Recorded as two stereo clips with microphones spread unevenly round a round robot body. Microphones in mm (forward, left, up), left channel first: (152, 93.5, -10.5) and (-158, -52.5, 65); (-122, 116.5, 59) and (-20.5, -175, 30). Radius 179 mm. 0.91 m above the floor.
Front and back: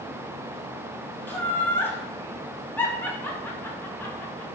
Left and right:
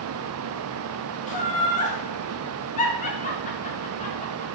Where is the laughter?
70° left, 0.9 m.